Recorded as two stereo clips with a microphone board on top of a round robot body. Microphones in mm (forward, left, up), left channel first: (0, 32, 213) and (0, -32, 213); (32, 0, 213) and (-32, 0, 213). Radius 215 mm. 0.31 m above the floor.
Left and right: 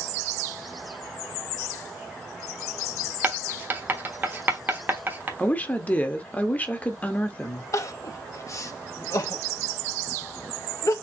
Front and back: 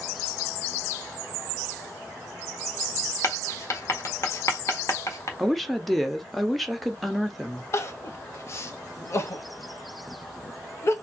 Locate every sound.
3.2 s writing: 35° right, 1.5 m
5.4 s a woman speaking: 85° left, 1.3 m
7.7 s crying: 50° left, 0.7 m